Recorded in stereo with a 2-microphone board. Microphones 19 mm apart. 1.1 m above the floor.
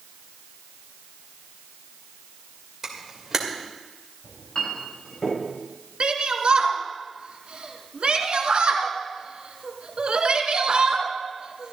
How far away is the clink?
About 5 m.